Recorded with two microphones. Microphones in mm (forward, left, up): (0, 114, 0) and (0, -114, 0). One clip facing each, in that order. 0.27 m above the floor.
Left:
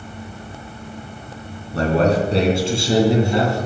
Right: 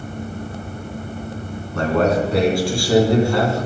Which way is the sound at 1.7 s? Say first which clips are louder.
Left 1 dB; 35° left (ahead or behind).